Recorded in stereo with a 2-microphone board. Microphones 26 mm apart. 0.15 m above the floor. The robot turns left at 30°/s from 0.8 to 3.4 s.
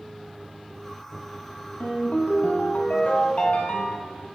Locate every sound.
1.8 s a ringtone: 95° left, 1.4 m; by 4.2 s 45° left, 1.4 m